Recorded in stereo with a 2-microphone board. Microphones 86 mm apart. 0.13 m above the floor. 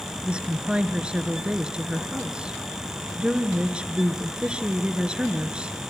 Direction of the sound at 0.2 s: 10° right (ahead or behind).